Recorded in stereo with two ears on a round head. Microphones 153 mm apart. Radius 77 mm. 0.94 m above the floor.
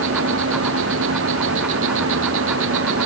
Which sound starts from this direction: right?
An insect, at 0.0 s.